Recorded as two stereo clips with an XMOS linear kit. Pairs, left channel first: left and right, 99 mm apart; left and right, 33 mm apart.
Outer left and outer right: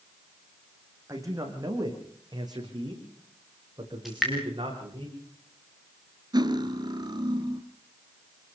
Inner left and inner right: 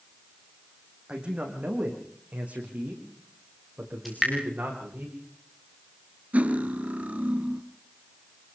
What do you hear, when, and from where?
1.1 s a man speaking: 30° right (ahead or behind), 6 m; by 5.0 s 55° right (ahead or behind), 10 m
4.0 s dripping: centre (ahead or behind), 6 m
6.3 s cutlery clinking: 45° right (ahead or behind), 1.4 m